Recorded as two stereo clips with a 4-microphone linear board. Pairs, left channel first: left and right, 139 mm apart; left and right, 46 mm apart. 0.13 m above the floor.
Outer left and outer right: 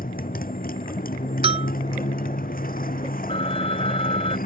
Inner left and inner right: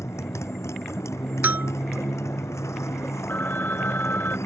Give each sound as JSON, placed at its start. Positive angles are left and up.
{"t": 0.0, "sound": "a motorcycle", "side_deg": 80}
{"t": 1.4, "sound": "a bell", "side_deg": -45}
{"t": 3.3, "sound": "a phone ringing", "side_deg": 40}